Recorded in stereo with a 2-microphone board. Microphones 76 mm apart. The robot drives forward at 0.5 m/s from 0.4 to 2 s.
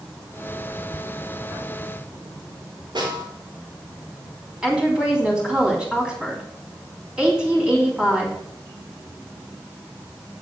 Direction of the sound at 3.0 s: 80° right.